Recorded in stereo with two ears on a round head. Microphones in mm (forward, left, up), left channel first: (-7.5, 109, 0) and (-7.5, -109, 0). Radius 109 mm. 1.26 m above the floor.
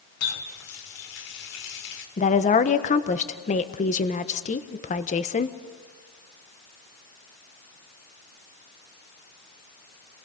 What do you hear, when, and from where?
0.2 s a running tap: 70° left (ahead or behind), 2.5 m
2.2 s a woman speaking: 30° left (ahead or behind), 1.1 m